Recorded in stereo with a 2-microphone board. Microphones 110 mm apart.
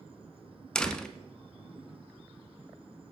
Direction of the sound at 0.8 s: 5° left (ahead or behind).